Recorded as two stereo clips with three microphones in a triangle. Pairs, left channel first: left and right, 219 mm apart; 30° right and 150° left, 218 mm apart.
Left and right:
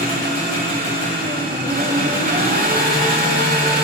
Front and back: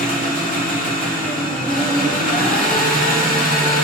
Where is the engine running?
65° right, 1.3 m.